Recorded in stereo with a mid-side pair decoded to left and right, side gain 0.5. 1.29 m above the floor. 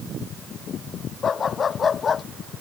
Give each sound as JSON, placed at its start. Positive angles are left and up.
{"t": 1.2, "sound": "a dog barking", "azimuth_deg": 40}